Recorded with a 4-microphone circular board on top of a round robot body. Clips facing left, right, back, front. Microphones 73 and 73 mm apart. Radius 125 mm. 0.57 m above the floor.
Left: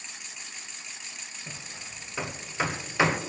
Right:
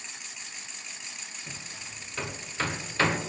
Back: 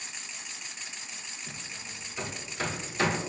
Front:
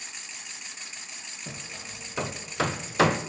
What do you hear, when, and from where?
1.5 s hammering: 10° left, 0.7 m